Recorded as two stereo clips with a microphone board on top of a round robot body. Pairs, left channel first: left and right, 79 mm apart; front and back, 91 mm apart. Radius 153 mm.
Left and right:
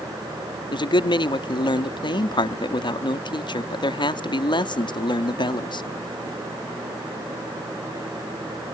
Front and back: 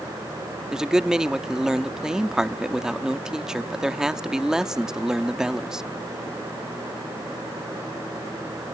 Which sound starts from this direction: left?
A man speaking, at 0.7 s.